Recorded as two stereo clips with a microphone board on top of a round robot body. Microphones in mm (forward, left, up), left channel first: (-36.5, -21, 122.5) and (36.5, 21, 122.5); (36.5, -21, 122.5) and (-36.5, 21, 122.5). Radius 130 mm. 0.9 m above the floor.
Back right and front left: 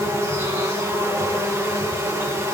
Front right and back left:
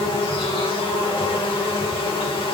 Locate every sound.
0.0 s an insect: 25° right, 2.5 m